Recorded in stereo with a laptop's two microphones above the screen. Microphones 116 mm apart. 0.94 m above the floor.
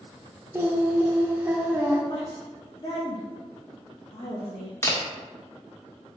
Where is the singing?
20° right (ahead or behind), 0.6 m.